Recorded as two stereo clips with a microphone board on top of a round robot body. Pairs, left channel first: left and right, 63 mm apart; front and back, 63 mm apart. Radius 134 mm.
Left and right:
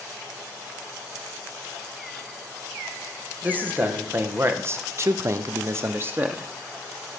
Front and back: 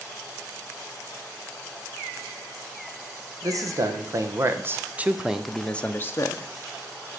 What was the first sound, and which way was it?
A man speaking, 155° right.